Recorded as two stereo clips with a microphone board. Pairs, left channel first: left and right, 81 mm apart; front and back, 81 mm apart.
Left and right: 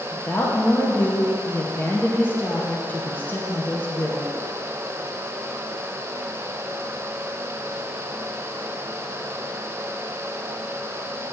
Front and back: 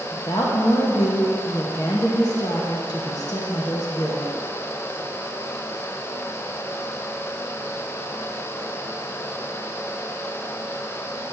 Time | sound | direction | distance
0.1 | a woman speaking | 30° left | 1.0 m